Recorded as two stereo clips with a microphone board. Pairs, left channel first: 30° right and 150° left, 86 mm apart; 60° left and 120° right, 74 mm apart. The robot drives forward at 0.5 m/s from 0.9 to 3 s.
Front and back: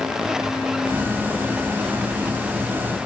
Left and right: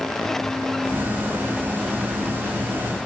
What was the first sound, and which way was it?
Only background noise.